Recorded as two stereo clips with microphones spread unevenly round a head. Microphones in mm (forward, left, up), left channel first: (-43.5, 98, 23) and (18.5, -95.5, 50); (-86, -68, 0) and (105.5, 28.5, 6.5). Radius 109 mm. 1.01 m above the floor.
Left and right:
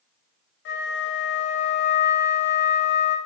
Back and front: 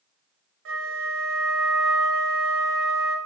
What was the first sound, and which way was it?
A flute, 65° left.